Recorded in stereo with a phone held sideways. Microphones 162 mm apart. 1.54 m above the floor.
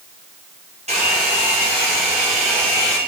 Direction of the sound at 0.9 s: 45° right (ahead or behind).